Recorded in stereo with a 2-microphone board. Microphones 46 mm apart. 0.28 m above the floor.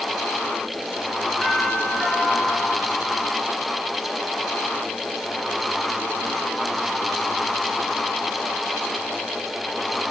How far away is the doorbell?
About 5.5 m.